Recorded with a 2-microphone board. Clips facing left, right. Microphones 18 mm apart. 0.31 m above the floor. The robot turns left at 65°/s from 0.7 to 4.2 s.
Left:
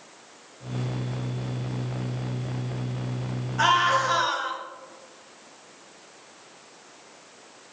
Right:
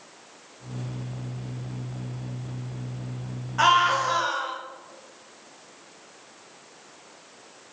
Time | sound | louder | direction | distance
3.6 | a scream | right 1 dB | 135° right | 1.5 m